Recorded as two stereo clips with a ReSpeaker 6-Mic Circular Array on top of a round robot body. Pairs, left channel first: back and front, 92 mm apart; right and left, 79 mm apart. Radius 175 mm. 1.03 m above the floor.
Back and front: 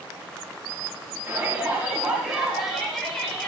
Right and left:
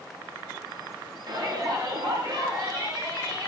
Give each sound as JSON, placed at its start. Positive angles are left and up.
{"t": 1.3, "sound": "a shout", "azimuth_deg": 65, "distance_m": 2.5}